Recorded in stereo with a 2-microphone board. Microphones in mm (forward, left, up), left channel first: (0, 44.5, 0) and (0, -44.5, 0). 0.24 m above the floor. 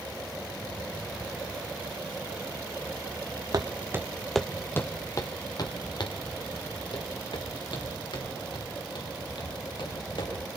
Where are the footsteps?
50° right (ahead or behind), 1.1 m; by 10.3 s 70° left (ahead or behind), 6.5 m.